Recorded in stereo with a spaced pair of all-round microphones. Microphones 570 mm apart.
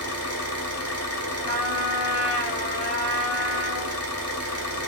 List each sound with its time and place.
0.0 s an engine running: 25° left (ahead or behind), 1.1 m
1.5 s a trumpet: 65° left (ahead or behind), 1.3 m